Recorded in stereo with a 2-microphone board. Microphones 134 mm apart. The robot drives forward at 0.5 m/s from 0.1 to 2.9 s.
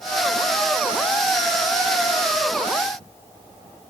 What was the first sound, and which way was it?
Only background noise.